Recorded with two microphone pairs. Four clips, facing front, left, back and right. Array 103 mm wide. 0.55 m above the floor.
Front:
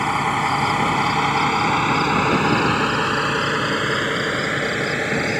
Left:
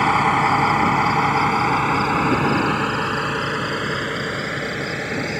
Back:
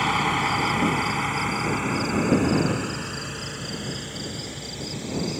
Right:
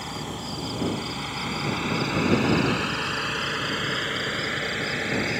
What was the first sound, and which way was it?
A vehicle, 80° left.